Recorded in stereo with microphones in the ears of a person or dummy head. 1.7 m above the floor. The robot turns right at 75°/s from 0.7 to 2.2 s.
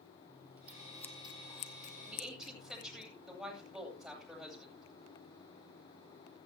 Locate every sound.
0.3 s scissors: 10° right (ahead or behind), 0.9 m; by 3.0 s 45° left (ahead or behind), 0.9 m
2.0 s a woman speaking: 15° right (ahead or behind), 9 m; by 4.9 s centre (ahead or behind), 9 m